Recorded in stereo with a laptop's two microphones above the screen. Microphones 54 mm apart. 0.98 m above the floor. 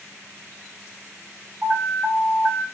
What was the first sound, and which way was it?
An alarm, 20° right (ahead or behind).